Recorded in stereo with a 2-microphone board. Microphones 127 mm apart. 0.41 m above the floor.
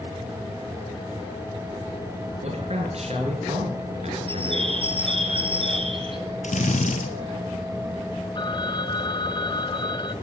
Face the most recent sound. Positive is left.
turn(degrees=40)  # may be behind; listen again after turning